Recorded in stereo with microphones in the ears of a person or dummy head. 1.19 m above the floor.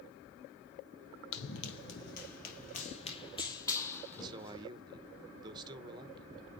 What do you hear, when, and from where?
1.3 s running footsteps: 60° left (ahead or behind), 2.5 m; by 4.6 s 5° left (ahead or behind), 3 m
4.1 s a man speaking: 30° right (ahead or behind), 1.0 m